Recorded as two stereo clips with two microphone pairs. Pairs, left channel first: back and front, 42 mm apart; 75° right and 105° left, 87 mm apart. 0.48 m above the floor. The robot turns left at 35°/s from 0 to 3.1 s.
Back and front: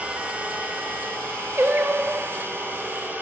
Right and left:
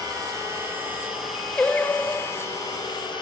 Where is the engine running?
60° left, 9 m; by 3.2 s 50° right, 9 m.